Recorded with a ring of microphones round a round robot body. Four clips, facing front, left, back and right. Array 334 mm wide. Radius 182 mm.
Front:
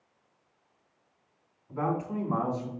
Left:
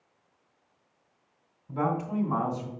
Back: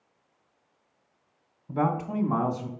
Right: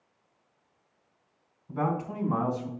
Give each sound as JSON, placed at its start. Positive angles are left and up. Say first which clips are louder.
{"t": 1.7, "sound": "a man speaking", "louder": "left 1 dB, back 3 dB", "azimuth_deg": 180, "distance_m": 2.5}